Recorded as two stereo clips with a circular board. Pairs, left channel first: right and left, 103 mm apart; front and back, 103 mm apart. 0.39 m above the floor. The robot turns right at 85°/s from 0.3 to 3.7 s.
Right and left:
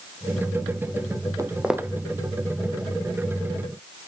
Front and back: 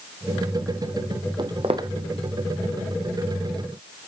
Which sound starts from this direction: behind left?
Footsteps, at 1.4 s.